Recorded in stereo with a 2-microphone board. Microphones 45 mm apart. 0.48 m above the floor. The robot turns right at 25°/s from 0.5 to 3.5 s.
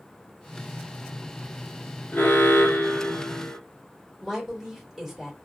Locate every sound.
2.1 s an alarm: 100° left, 0.7 m; by 3.6 s 135° left, 0.7 m
4.2 s a woman speaking: centre (ahead or behind), 1.8 m